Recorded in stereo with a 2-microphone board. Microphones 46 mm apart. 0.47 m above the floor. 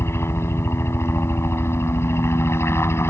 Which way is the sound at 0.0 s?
65° left (ahead or behind).